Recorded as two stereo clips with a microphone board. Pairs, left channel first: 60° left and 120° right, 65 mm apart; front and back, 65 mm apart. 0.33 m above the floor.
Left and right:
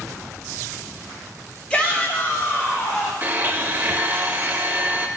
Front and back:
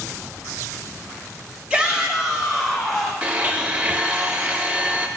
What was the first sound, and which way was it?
A shout, 120° left.